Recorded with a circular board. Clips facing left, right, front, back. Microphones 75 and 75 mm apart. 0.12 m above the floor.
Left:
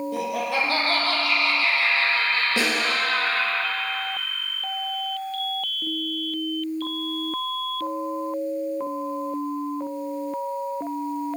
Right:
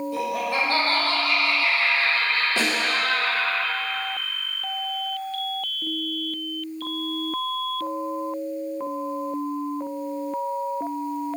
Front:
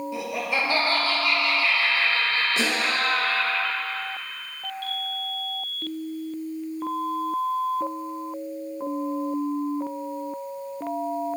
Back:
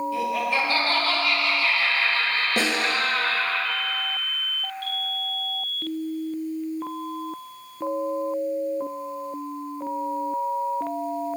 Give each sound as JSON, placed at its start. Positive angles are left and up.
{"t": 0.1, "sound": "laughter", "azimuth_deg": 70, "distance_m": 2.5}
{"t": 2.6, "sound": "a snare drum", "azimuth_deg": 160, "distance_m": 1.7}